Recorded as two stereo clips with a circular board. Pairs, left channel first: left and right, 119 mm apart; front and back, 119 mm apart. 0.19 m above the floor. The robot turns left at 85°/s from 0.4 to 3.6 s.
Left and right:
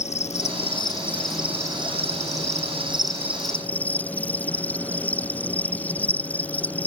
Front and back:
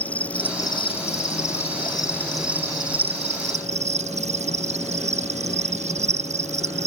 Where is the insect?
80° left; by 6.9 s 165° left.